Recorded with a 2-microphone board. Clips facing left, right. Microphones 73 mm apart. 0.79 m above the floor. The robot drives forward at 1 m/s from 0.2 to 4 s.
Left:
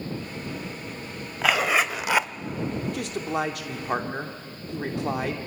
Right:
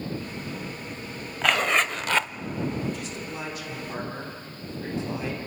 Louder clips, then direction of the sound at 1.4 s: Left 1 dB; 5° left (ahead or behind).